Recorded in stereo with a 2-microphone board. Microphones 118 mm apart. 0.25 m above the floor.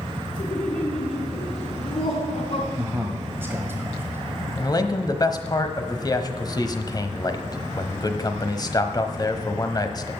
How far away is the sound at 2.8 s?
About 1.3 m.